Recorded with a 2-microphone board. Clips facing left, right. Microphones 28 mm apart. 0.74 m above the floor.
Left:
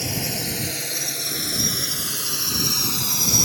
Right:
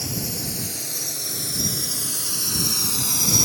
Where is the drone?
40° left (ahead or behind); by 3.5 s centre (ahead or behind).